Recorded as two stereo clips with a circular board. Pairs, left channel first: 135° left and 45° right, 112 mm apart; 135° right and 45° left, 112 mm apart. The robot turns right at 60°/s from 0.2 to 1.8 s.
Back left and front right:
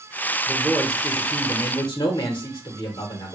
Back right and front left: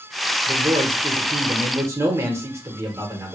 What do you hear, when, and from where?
0.5 s a man speaking: 20° left, 1.1 m; by 3.4 s 105° left, 1.1 m